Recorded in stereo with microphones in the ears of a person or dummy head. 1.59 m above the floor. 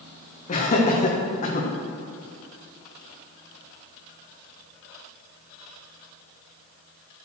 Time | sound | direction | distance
0.5 | laughter | 40° left (ahead or behind) | 1.5 m